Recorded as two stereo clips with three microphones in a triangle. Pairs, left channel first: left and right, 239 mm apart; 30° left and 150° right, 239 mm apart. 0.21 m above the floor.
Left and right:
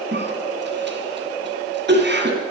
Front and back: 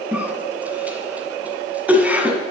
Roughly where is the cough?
Ahead right.